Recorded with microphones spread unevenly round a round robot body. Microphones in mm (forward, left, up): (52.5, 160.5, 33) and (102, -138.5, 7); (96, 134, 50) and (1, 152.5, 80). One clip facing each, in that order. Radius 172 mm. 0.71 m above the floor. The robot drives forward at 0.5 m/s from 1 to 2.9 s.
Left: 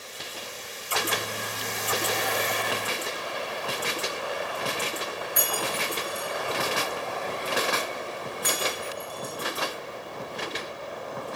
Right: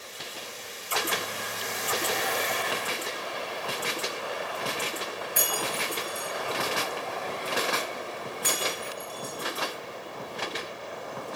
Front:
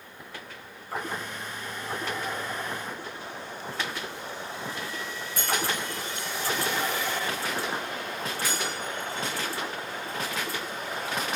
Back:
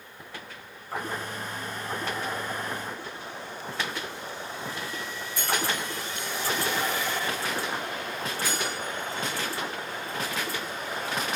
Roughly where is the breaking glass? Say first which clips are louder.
Left 1 dB, even; ahead right.